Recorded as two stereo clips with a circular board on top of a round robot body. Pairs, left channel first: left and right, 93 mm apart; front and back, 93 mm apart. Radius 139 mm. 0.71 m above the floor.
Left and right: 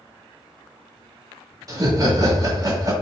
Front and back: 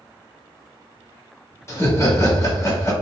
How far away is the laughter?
About 1.6 m.